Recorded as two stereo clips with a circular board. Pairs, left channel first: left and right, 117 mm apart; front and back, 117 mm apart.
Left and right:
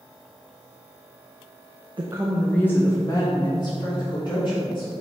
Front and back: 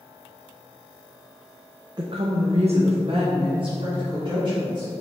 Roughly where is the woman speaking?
Behind right.